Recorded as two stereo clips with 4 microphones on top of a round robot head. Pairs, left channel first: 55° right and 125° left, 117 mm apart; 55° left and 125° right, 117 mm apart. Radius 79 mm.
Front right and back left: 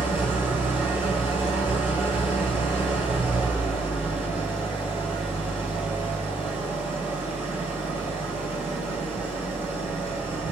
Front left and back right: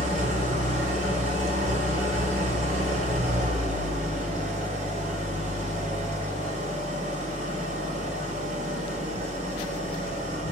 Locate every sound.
0.0 s an engine running: 160° right, 1.6 m